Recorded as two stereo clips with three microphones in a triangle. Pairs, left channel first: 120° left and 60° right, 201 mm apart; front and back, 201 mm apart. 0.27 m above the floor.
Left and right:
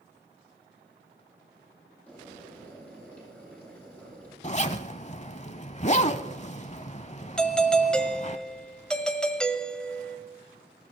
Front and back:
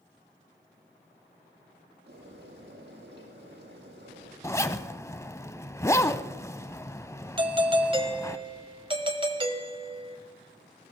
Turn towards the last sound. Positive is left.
turn(degrees=-160)